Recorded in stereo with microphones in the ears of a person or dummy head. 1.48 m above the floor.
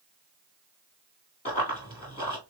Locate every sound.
1.4 s running footsteps: 30° left (ahead or behind), 1.6 m